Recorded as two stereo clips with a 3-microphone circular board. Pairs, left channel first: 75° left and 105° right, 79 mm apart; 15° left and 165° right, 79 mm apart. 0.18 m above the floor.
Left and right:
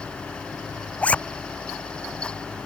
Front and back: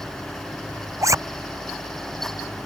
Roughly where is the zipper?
Behind left.